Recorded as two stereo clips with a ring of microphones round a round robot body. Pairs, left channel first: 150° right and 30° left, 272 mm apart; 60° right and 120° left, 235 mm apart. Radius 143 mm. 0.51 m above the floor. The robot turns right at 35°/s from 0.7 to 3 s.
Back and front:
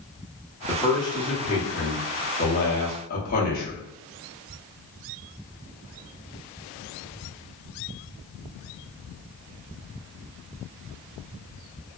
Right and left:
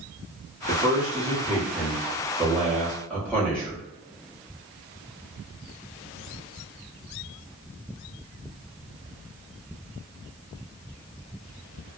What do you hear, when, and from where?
0.7 s a man speaking: 140° left, 0.9 m; by 3.8 s 140° right, 0.9 m